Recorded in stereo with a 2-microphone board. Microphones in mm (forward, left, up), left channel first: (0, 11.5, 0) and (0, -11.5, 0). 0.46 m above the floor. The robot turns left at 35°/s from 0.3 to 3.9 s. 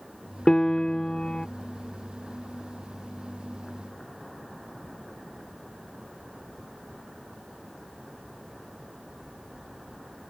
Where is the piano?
115° left; by 1.5 s 80° left.